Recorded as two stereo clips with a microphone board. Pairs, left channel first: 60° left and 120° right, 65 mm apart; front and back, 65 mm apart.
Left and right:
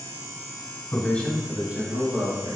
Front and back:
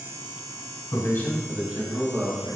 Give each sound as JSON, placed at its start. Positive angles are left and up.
{"t": 0.9, "sound": "a man speaking", "azimuth_deg": 15, "distance_m": 1.3}